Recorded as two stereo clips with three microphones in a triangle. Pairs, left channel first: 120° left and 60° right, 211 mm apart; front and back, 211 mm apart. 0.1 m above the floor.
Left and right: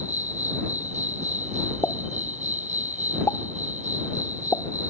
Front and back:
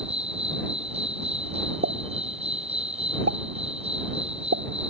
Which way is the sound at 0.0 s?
120° right.